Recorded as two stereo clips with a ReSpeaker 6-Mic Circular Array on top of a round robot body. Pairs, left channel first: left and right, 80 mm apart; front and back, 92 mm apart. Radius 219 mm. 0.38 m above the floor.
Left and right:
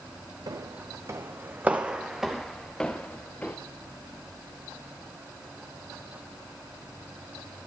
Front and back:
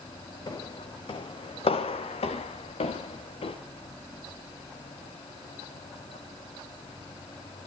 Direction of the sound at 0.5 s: 50° right.